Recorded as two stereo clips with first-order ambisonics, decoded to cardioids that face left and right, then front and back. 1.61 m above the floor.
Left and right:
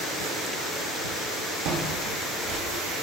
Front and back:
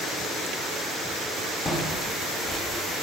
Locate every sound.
1.6 s footsteps: 85° right, 3 m; by 2.8 s 90° right, 4.5 m